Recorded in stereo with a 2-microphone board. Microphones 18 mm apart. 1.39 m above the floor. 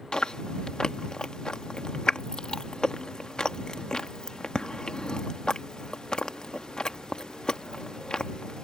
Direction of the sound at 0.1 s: 55° left (ahead or behind).